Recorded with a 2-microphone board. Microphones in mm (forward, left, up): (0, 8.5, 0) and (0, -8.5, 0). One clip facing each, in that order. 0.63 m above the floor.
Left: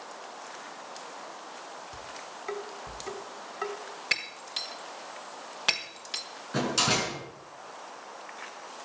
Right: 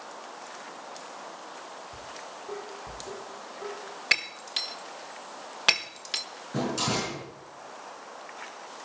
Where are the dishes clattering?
85° left, 3 m.